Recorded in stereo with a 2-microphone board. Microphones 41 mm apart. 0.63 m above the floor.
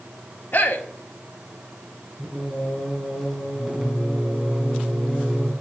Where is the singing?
5° left (ahead or behind), 5 m.